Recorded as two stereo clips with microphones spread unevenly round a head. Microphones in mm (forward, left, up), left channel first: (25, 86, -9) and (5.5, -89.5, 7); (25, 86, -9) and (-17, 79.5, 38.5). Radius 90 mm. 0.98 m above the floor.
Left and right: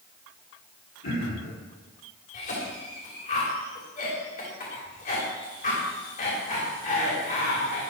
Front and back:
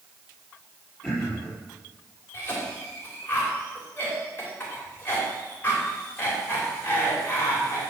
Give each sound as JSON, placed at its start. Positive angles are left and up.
{"t": 1.0, "sound": "throat clearing", "azimuth_deg": 90, "distance_m": 4.0}
{"t": 2.3, "sound": "a cough", "azimuth_deg": 40, "distance_m": 2.5}